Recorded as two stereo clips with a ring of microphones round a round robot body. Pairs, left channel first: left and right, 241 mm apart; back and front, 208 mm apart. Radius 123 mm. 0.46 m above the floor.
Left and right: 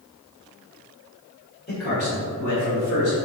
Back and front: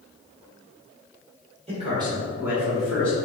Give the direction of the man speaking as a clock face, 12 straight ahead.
10 o'clock.